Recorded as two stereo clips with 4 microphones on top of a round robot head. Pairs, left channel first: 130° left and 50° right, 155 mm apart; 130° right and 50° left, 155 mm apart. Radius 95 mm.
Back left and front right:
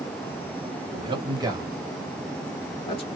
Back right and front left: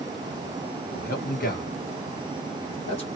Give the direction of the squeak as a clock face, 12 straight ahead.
I don't hear a squeak.